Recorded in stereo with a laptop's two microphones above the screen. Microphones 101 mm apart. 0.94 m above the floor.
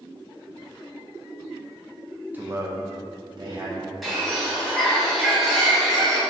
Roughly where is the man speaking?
Centre.